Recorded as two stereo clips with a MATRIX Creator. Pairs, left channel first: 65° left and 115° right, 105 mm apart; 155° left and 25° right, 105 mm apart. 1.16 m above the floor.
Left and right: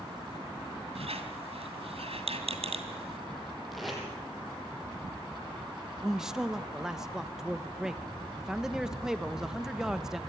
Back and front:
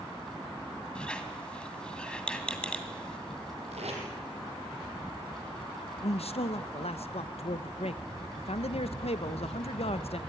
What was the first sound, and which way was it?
A squeak, 120° right.